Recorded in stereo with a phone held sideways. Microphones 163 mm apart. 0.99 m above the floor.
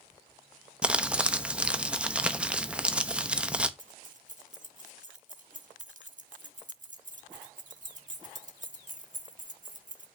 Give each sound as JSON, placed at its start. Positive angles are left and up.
{"t": 0.8, "sound": "crumpling", "side_deg": -5, "distance_m": 0.8}
{"t": 3.8, "sound": "keys jangling", "side_deg": -55, "distance_m": 1.1}